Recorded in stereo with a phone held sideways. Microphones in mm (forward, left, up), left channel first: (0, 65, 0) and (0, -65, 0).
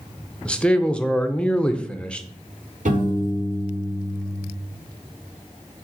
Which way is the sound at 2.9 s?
75° right (ahead or behind).